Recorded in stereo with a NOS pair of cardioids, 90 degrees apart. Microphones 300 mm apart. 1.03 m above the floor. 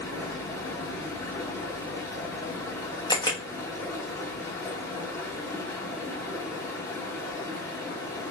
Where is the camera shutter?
15° left, 1.1 m.